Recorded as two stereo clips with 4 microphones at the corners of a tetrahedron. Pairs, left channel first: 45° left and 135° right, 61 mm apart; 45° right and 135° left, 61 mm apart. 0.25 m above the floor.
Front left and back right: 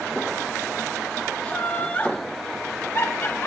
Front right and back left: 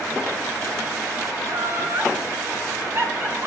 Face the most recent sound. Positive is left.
turn(degrees=90)